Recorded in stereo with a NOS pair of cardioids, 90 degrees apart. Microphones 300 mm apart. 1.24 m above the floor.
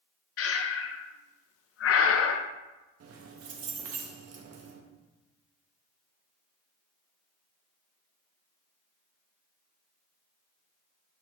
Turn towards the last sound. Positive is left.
turn(degrees=-55)